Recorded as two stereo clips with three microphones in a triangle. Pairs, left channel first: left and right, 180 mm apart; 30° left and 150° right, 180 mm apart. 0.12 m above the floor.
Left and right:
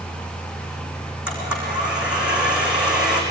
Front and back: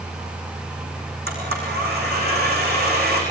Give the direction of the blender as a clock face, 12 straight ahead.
6 o'clock.